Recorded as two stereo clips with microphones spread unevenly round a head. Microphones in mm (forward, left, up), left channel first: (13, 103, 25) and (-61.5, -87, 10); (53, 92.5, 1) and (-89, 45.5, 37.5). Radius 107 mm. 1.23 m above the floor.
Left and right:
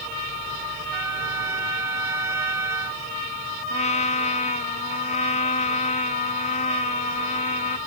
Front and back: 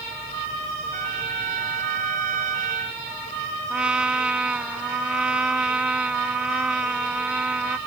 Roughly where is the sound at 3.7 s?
Behind left.